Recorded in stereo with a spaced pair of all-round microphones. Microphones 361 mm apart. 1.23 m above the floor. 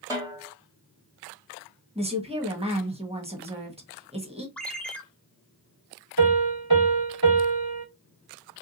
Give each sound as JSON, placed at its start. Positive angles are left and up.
{"t": 0.1, "sound": "a snare drum", "side_deg": -10, "distance_m": 1.8}
{"t": 1.9, "sound": "a woman speaking", "side_deg": -15, "distance_m": 1.4}
{"t": 4.6, "sound": "a ringtone", "side_deg": 5, "distance_m": 0.9}
{"t": 6.2, "sound": "a piano", "side_deg": -70, "distance_m": 2.5}